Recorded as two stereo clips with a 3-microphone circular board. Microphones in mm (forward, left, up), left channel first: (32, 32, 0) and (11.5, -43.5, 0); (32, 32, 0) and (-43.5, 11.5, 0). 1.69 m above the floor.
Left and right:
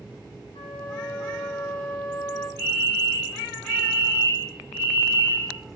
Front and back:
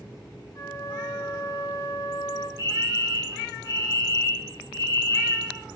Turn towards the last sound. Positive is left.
turn(degrees=140)